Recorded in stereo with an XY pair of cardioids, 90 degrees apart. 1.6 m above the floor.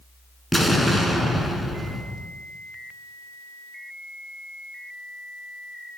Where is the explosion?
Straight ahead, 7 m.